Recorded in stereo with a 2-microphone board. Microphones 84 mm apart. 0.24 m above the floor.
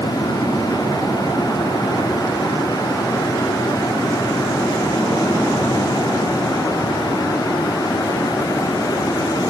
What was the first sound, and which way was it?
Only background noise.